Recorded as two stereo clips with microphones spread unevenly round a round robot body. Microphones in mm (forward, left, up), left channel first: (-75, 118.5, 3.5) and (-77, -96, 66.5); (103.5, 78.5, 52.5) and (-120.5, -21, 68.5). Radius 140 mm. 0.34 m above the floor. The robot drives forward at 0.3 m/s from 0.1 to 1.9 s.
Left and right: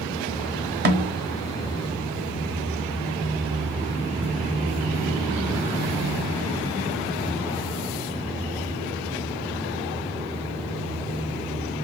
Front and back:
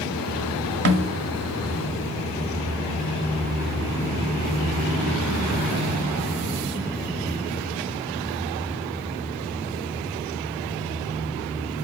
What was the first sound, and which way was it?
A snare drum, 130° right.